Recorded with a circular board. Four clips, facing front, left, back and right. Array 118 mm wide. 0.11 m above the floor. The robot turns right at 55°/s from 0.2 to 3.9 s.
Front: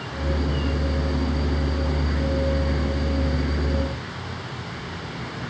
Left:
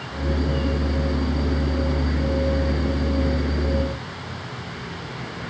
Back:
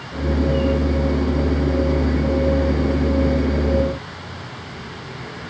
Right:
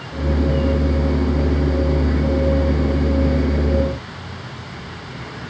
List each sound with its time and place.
Only background noise.